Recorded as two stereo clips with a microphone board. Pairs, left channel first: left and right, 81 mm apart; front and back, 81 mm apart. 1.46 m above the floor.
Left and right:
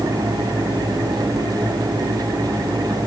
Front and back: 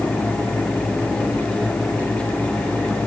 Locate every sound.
Only background noise.